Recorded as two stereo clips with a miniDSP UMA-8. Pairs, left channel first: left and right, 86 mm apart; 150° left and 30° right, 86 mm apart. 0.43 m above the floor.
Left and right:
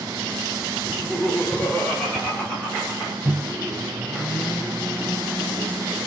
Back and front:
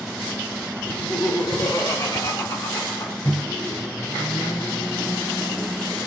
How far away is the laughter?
About 1.1 m.